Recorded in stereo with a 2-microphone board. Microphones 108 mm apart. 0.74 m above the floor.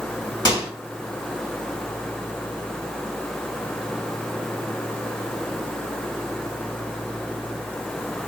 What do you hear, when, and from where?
0.5 s a microwave: 40° left (ahead or behind), 1.6 m